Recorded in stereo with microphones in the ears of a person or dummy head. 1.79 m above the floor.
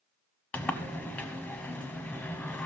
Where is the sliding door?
5° left (ahead or behind), 0.7 m.